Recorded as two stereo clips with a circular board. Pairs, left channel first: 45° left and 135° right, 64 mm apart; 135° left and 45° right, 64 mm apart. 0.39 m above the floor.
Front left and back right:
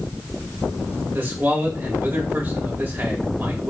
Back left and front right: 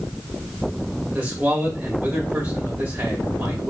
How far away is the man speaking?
About 2.0 m.